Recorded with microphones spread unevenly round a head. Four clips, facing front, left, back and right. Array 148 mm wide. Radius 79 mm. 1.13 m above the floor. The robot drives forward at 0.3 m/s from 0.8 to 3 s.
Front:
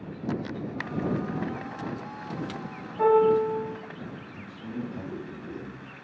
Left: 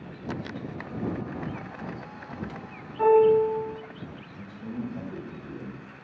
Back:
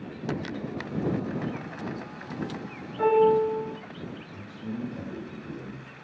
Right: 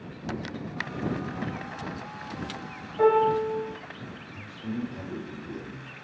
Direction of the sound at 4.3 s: 135° left.